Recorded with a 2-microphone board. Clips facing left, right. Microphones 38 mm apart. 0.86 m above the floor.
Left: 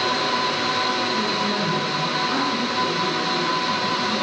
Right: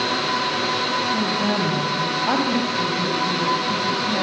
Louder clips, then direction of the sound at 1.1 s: Right 1 dB; 85° right.